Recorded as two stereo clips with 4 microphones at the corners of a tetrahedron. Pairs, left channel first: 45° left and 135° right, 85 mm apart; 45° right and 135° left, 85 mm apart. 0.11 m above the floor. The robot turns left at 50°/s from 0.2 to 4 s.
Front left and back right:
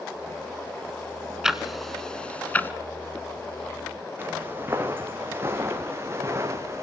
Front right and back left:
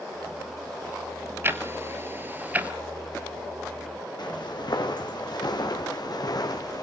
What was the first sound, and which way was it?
Ticking, 150° left.